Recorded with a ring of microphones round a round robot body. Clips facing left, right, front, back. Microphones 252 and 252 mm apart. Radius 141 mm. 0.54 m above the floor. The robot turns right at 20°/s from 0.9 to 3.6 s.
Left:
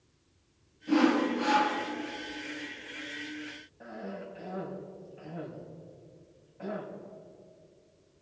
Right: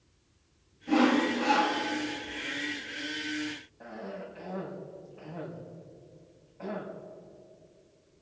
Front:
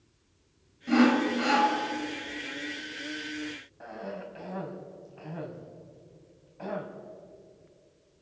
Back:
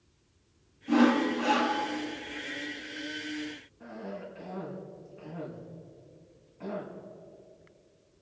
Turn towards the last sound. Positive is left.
turn(degrees=5)